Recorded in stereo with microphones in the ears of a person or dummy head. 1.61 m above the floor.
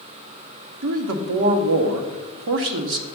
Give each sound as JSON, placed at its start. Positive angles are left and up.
{"t": 0.8, "sound": "a man speaking", "side_deg": -60, "distance_m": 0.8}